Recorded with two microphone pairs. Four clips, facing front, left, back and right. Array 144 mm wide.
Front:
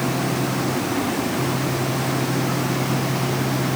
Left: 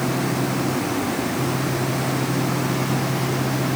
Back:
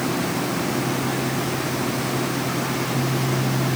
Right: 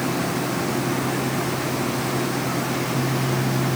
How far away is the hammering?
I don't hear hammering.